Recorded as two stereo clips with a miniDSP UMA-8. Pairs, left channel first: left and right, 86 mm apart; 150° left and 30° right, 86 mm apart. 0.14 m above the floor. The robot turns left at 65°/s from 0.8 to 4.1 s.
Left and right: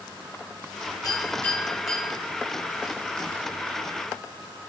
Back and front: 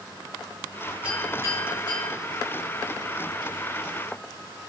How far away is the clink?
About 5 m.